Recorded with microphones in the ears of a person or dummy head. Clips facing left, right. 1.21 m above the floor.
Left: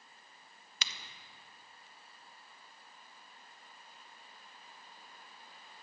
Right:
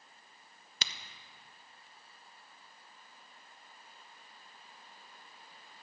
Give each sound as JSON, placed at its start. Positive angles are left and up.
{"t": 0.8, "sound": "a crack", "side_deg": -35, "distance_m": 0.5}